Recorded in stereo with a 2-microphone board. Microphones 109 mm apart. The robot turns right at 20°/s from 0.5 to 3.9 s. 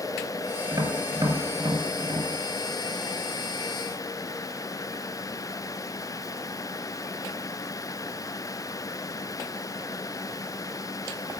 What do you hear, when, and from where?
0.7 s tapping: 35° right (ahead or behind), 1.4 m; by 2.3 s 40° right (ahead or behind), 1.4 m